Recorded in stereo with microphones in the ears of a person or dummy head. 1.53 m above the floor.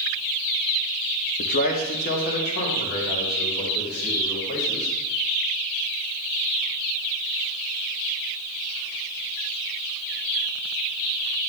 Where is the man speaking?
40° left (ahead or behind), 0.6 m; by 4.9 s 50° left (ahead or behind), 4.5 m.